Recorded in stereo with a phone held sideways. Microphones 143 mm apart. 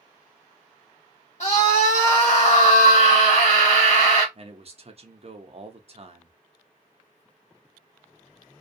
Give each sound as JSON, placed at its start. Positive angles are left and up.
{"t": 1.4, "sound": "a scream", "side_deg": 50, "distance_m": 1.2}
{"t": 4.3, "sound": "a man speaking", "side_deg": -45, "distance_m": 0.7}